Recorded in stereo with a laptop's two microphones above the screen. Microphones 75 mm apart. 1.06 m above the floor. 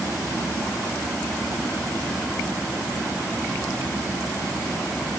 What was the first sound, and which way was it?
Only background noise.